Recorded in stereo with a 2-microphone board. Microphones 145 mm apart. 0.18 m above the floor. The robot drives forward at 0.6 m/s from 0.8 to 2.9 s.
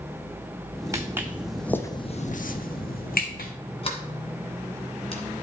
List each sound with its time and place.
0.9 s footsteps: 20° right (ahead or behind), 1.1 m; by 3.5 s 85° left, 1.3 m
3.8 s a sliding door: 40° left (ahead or behind), 1.6 m